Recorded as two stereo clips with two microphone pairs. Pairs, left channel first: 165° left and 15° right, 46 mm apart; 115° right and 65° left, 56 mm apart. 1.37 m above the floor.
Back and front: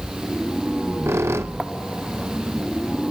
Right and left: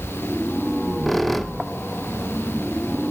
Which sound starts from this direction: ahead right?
A squeak, at 0.7 s.